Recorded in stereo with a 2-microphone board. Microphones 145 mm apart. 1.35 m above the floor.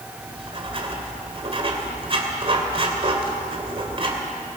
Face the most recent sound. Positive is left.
turn(degrees=-40)  # may be behind; listen again after turning